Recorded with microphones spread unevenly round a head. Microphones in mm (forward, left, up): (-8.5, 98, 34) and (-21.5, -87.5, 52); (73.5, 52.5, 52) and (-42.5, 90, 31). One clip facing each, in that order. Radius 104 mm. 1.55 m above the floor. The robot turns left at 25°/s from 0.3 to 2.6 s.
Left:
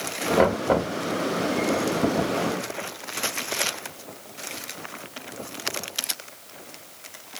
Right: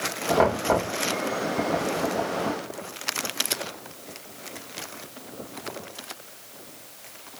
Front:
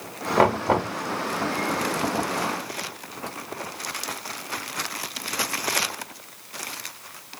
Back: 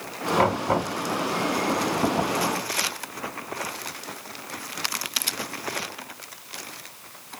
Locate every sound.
0.4 s knocking: 10° left, 2.0 m; by 0.9 s 5° right, 2.0 m